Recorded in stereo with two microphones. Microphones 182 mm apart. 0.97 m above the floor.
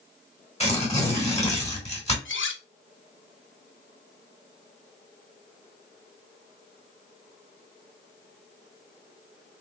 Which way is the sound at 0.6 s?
30° left (ahead or behind).